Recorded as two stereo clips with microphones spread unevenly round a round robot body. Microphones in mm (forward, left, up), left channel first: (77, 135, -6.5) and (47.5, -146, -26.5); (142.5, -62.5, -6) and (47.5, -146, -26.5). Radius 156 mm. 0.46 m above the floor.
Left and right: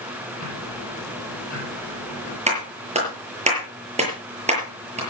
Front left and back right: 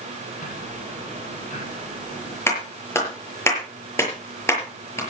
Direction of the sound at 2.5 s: 30° right.